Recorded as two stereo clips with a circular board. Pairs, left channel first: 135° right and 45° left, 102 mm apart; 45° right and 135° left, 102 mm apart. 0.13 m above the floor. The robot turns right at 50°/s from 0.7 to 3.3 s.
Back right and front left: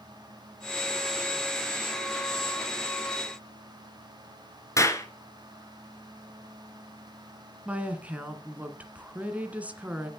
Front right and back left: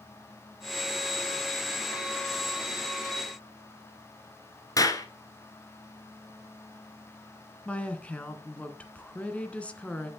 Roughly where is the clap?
Right.